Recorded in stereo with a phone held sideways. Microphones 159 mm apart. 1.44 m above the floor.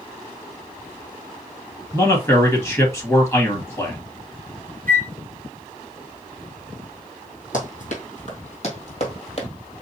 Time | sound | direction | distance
1.9 | a man speaking | 20° left (ahead or behind) | 1.6 m
4.9 | a flute | 65° right (ahead or behind) | 0.7 m
7.5 | running footsteps | 55° left (ahead or behind) | 2.5 m